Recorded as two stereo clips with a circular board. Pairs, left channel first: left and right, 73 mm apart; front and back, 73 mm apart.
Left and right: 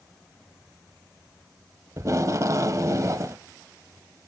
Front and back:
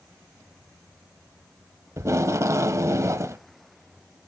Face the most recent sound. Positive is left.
turn(degrees=-135)